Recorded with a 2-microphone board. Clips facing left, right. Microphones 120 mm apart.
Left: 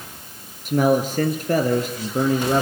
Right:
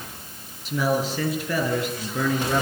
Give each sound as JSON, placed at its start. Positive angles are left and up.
{"t": 0.7, "sound": "a man speaking", "side_deg": 55, "distance_m": 4.5}